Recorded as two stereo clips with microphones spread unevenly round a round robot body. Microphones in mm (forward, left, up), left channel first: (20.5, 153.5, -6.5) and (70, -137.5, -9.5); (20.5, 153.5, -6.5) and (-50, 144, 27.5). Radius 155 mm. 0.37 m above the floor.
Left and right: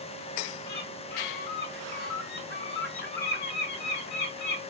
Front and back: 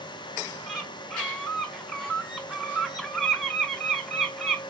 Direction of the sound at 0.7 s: 65° left.